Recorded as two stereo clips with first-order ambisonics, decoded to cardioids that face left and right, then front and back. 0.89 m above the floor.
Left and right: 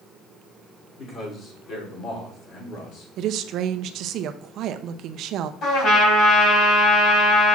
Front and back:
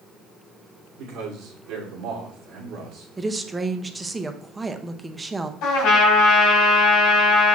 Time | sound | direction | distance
1.0 | a man speaking | 150° left | 3 m
3.2 | a woman speaking | 100° right | 0.5 m
5.6 | a trumpet | 35° left | 4 m